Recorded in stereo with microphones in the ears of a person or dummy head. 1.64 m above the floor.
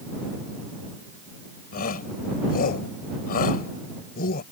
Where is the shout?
50° left (ahead or behind).